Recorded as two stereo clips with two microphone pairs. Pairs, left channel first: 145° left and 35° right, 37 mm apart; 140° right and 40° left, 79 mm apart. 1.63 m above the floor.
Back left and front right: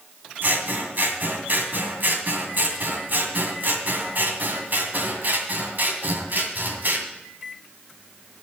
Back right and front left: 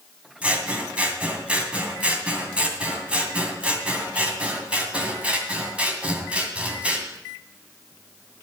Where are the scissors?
30° right, 2 m.